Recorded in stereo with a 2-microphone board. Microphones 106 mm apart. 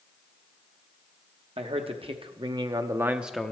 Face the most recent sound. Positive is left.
turn(degrees=10)  # may be behind; listen again after turning